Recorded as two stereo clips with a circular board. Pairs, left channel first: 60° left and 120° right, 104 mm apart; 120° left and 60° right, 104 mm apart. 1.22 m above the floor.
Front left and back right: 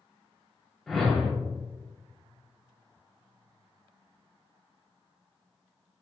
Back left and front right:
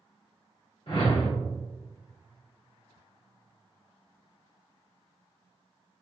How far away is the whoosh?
About 1.5 m.